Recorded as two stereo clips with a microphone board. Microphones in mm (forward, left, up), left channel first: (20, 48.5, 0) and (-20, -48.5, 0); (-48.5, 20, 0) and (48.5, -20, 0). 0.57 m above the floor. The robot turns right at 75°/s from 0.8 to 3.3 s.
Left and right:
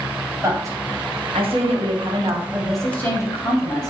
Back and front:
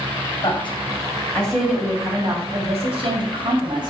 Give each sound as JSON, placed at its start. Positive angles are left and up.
{"t": 0.4, "sound": "a woman speaking", "azimuth_deg": -170, "distance_m": 3.0}